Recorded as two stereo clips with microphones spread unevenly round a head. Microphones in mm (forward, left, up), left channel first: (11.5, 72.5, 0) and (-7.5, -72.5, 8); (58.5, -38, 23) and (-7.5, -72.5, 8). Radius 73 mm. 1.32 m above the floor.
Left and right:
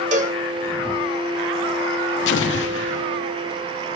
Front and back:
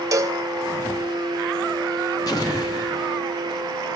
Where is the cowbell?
110° right, 1.3 m.